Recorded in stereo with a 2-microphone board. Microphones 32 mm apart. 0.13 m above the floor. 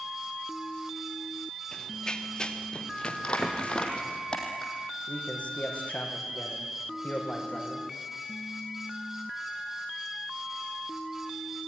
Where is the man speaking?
45° left (ahead or behind), 5.5 m.